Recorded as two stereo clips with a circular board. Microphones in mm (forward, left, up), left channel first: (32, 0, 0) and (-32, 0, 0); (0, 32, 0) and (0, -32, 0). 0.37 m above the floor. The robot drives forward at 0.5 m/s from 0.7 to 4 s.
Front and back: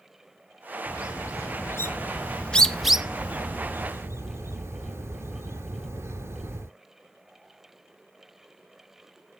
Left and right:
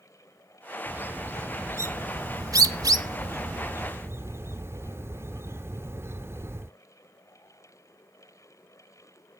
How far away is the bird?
About 1.2 m.